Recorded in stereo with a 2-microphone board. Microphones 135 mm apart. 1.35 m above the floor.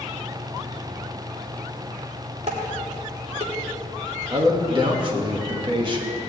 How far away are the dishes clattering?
About 2.5 m.